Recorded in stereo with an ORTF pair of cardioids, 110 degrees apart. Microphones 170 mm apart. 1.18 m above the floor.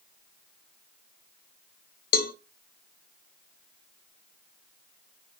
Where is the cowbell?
60° left, 0.7 m.